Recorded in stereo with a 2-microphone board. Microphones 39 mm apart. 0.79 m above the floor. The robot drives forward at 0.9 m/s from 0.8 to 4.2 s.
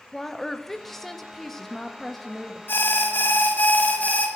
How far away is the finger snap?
No finger snap in this recording.